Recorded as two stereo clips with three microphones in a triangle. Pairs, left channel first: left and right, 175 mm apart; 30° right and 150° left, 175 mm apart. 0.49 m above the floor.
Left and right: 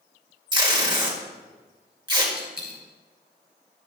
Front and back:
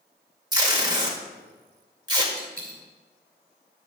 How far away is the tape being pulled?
About 1.6 m.